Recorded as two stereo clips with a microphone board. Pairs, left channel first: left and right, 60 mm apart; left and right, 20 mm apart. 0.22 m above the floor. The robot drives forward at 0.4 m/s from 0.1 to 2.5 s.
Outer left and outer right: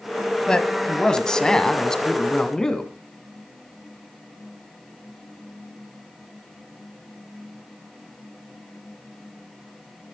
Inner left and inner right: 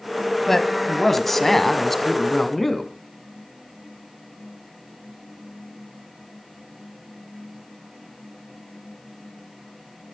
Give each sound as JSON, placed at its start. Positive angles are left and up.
{"t": 0.5, "sound": "a man speaking", "side_deg": 15, "distance_m": 1.6}